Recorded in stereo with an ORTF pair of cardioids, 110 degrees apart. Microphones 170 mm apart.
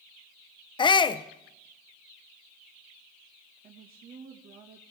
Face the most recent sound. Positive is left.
turn(degrees=-60)